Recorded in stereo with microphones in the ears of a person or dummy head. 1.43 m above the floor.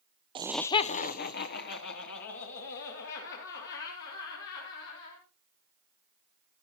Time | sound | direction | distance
0.3 | laughter | 30° right (ahead or behind) | 0.5 m